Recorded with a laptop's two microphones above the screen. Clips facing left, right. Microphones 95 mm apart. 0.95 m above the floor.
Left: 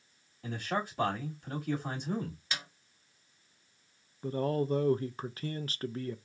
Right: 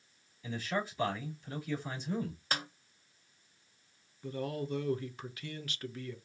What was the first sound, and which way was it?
A man speaking, 55° left (ahead or behind).